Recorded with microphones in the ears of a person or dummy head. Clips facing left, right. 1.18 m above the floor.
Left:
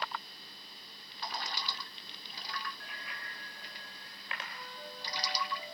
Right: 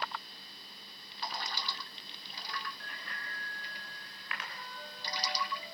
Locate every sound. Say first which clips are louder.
2.8 s a bicycle bell: right 1 dB; 5° left (ahead or behind), 4 m; by 4.4 s 30° left (ahead or behind), 4 m
4.5 s a flute: left 1 dB; 10° left (ahead or behind), 10 m